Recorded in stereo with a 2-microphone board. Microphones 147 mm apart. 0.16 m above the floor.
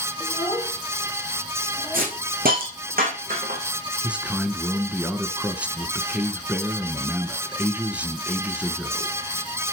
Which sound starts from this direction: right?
A hiss, at 1.9 s.